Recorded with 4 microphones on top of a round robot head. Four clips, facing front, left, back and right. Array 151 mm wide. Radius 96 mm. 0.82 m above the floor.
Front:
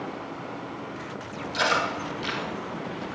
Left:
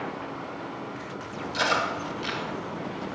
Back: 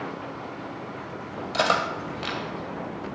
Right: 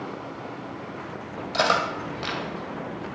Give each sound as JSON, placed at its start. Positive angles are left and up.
{"t": 1.5, "sound": "cutlery clinking", "azimuth_deg": -130, "distance_m": 2.5}